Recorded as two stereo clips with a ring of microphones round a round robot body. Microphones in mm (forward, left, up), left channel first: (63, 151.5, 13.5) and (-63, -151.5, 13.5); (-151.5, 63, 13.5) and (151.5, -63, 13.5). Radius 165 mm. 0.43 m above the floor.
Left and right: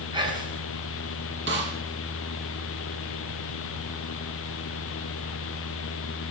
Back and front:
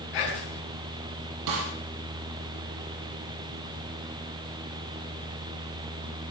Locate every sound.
0.1 s whispering: 170° left, 4.5 m
1.5 s a snare drum: 55° right, 5 m